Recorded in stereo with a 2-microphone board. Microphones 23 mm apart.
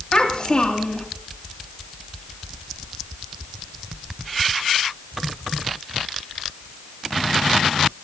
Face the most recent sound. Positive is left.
turn(degrees=35)  # may be behind; listen again after turning